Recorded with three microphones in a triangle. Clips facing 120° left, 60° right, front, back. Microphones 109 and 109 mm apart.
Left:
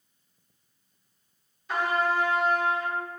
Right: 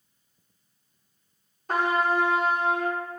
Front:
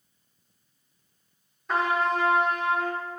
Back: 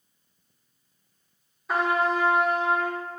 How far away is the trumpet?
About 0.7 m.